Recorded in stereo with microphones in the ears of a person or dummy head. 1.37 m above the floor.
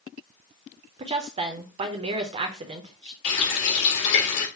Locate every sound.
1.0 s a woman speaking: 25° right (ahead or behind), 0.9 m
3.2 s a running tap: 65° left (ahead or behind), 1.9 m